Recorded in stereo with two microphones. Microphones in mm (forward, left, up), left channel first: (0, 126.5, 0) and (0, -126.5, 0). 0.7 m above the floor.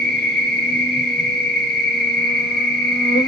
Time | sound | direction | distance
0.0 | an insect | 40° left (ahead or behind) | 0.7 m